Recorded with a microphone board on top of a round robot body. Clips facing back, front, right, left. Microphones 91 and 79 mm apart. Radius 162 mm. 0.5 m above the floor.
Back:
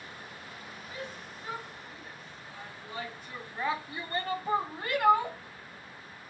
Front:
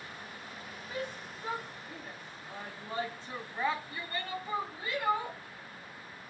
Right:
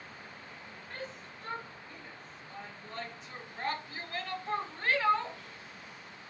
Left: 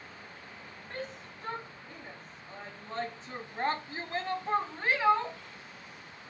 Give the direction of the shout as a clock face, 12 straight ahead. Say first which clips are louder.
Front 4 dB, left 3 dB; 11 o'clock.